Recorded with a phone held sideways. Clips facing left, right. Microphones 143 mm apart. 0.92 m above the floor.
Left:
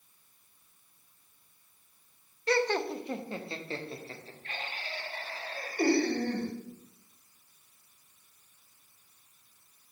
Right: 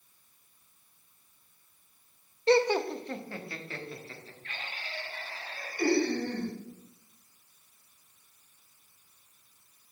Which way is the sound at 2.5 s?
30° right (ahead or behind).